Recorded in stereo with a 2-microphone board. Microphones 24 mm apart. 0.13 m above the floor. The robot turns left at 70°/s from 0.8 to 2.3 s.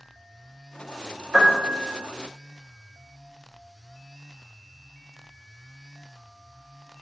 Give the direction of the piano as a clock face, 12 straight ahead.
4 o'clock.